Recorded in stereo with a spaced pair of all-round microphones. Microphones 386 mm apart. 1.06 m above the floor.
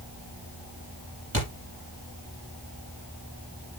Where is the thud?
35° right (ahead or behind), 6.5 m.